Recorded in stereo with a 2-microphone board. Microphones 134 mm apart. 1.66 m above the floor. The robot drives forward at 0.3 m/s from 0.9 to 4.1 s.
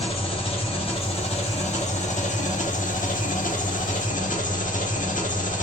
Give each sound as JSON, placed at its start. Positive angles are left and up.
{"t": 0.0, "sound": "an engine running", "side_deg": 45, "distance_m": 1.1}